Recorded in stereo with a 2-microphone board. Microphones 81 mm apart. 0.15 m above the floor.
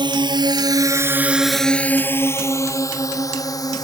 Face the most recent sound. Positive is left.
turn(degrees=50)  # may be behind; listen again after turning